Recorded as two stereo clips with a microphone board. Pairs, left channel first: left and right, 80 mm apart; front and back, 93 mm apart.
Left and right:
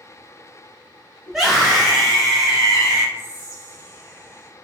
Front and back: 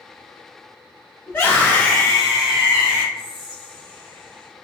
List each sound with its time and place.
1.3 s a scream: 10° right, 1.1 m; by 3.0 s 170° left, 1.0 m
3.1 s whispering: 45° left, 1.9 m